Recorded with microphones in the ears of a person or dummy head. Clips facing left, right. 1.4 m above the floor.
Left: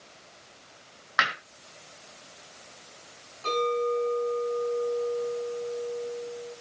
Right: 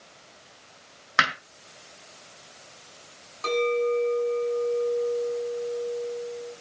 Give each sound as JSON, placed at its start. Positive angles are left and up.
{"t": 1.2, "sound": "hammering", "side_deg": -40, "distance_m": 3.0}
{"t": 3.4, "sound": "a clink", "side_deg": -70, "distance_m": 8.0}